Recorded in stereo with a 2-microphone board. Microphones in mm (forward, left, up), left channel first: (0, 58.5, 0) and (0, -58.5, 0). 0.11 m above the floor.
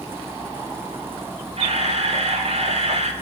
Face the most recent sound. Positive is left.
turn(degrees=-60)  # may be behind; listen again after turning